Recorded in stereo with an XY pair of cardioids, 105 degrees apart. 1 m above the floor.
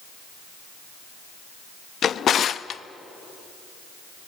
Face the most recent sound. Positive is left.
turn(degrees=55)